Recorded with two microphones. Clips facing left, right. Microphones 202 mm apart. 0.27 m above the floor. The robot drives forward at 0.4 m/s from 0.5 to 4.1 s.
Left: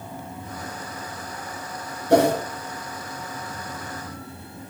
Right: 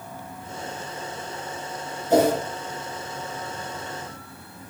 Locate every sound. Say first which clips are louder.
2.1 s a whoosh: left 1 dB; 70° left (ahead or behind), 4 m